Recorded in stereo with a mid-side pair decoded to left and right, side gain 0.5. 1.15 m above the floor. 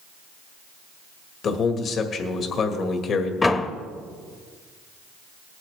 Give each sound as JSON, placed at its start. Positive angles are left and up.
{"t": 1.4, "sound": "a man speaking", "azimuth_deg": 55, "distance_m": 1.8}
{"t": 3.4, "sound": "a door slam", "azimuth_deg": 30, "distance_m": 1.2}